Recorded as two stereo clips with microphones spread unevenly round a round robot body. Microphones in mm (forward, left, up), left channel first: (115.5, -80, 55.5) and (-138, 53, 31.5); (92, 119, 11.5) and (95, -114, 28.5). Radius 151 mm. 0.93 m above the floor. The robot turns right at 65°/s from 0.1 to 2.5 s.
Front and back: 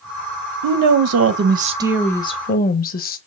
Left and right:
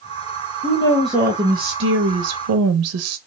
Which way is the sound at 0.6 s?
150° left.